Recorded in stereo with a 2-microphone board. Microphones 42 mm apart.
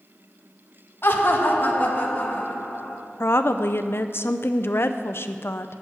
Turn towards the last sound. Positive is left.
turn(degrees=65)  # may be behind; listen again after turning